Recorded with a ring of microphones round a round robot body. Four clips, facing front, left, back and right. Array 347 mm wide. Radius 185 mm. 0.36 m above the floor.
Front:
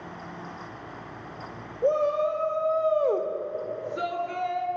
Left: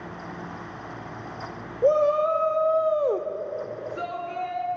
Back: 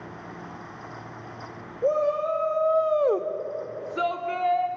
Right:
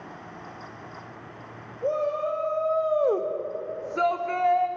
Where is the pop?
I don't hear a pop.